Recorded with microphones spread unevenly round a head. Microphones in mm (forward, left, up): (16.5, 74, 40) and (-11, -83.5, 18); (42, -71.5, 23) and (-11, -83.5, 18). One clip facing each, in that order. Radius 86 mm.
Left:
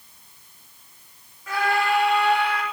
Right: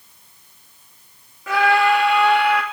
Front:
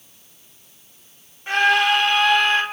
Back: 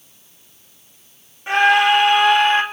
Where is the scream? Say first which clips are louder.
Right 6 dB, back 3 dB; 85° right, 3 m.